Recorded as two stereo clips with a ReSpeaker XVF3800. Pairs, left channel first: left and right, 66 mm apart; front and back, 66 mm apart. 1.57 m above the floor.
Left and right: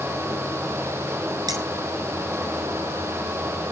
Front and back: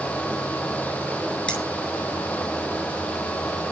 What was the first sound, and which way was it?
Cutlery clinking, 75° right.